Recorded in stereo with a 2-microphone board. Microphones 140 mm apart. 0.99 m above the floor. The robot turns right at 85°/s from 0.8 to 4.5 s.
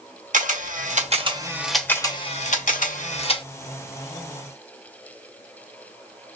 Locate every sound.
0.3 s a camera shutter: 65° right (ahead or behind), 1.3 m; by 3.4 s 30° left (ahead or behind), 1.3 m